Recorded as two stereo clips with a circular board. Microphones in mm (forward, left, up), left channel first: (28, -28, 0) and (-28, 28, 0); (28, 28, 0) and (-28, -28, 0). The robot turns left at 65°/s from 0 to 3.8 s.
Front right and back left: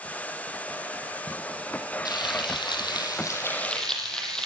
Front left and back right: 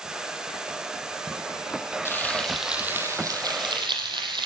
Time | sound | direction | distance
2.0 | frying | 15° right | 5.5 m